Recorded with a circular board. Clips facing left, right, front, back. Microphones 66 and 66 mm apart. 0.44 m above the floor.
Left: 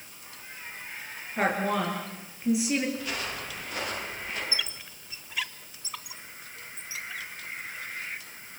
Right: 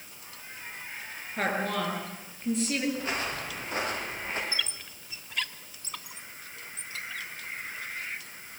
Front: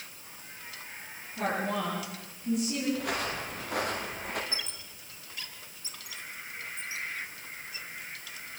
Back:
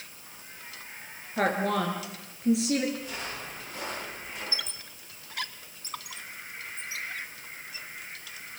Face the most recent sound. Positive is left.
turn(degrees=175)